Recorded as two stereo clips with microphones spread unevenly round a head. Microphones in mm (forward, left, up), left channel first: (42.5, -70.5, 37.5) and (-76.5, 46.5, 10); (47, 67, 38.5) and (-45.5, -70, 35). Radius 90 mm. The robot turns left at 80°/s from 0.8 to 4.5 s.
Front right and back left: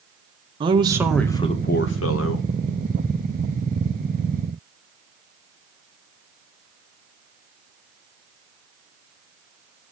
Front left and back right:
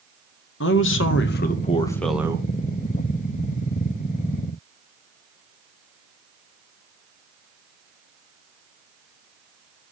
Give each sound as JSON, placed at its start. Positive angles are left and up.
{"t": 0.6, "sound": "a man speaking", "azimuth_deg": 70, "distance_m": 1.8}